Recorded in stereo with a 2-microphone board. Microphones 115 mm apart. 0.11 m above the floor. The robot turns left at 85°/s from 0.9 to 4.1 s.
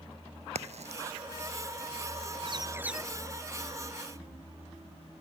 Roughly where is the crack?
Right.